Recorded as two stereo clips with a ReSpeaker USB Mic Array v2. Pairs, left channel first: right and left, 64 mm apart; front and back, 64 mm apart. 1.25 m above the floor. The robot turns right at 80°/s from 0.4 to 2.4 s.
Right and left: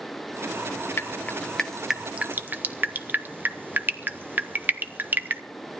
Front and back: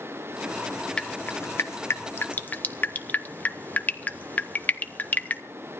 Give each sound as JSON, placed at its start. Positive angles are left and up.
{"t": 1.0, "sound": "dripping", "azimuth_deg": -65, "distance_m": 0.8}